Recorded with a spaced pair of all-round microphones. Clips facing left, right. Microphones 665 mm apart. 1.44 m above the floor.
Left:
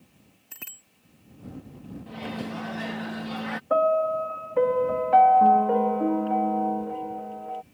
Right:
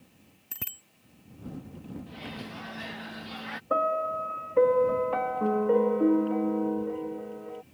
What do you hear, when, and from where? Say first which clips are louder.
0.5 s a bicycle bell: right 4 dB; 60° right (ahead or behind)
2.1 s a microwave: left 7 dB; 75° left (ahead or behind)
3.7 s a piano: left 6 dB; 20° left (ahead or behind)